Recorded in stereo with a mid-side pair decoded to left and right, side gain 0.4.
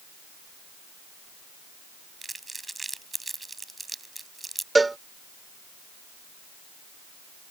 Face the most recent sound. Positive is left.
turn(degrees=-20)